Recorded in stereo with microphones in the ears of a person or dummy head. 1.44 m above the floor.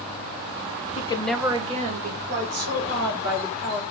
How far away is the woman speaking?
About 0.5 m.